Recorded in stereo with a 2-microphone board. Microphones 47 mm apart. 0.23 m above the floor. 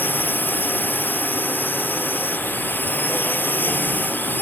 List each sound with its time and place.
0.0 s a drone: 45° left (ahead or behind)